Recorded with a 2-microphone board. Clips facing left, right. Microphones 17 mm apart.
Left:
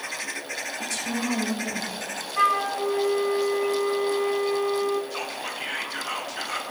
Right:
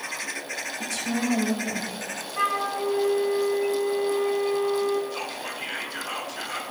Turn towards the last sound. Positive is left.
turn(degrees=25)  # may be behind; listen again after turning